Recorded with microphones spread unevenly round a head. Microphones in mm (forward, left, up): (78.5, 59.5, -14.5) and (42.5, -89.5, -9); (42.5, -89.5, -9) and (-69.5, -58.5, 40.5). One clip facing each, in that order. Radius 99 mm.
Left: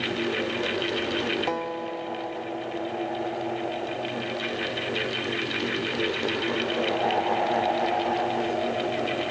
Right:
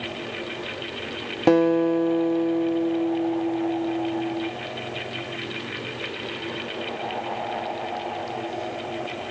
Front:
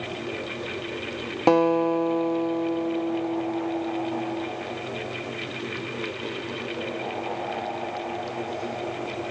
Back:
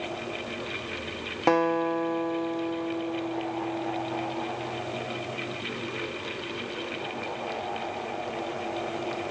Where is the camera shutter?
I don't hear a camera shutter.